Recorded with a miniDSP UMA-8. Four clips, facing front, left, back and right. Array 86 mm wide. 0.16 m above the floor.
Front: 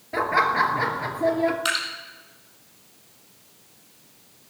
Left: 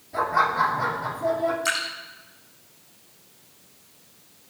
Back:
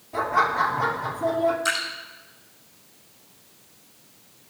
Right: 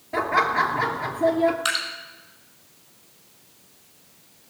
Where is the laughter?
45° right, 2.5 m.